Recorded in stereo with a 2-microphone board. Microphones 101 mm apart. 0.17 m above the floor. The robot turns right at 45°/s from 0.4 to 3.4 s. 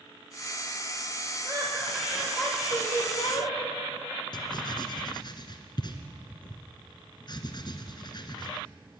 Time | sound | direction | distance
1.4 | laughter | 40° right | 7 m
4.3 | writing | 45° left (ahead or behind) | 2 m